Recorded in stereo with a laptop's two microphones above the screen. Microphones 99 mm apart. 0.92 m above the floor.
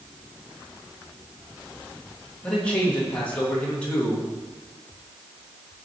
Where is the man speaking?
15° left (ahead or behind), 1.5 m.